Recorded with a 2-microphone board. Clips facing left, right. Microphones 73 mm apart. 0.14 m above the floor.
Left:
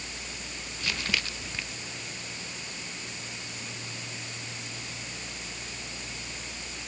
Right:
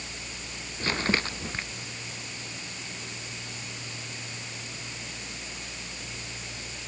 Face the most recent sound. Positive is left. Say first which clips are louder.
# right 5 dB
turn(degrees=-40)  # may be behind; listen again after turning